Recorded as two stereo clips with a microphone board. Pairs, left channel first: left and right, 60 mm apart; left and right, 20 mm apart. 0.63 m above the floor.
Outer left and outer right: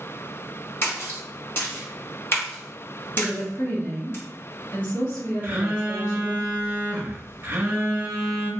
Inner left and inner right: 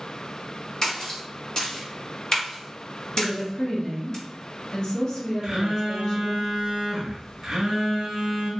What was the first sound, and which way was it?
A splash, 40° left (ahead or behind).